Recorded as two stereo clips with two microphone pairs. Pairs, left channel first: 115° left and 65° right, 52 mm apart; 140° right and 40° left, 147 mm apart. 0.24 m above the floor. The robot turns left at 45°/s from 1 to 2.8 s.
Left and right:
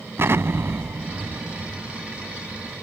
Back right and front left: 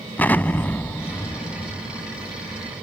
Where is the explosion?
70° right; by 2.8 s 145° right.